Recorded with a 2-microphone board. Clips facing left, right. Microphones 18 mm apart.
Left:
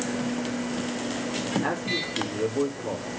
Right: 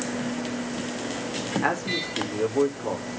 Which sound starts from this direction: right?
A man speaking, at 1.6 s.